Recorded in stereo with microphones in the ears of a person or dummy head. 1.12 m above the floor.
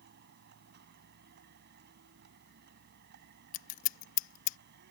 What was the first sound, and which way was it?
A vehicle, 55° right (ahead or behind).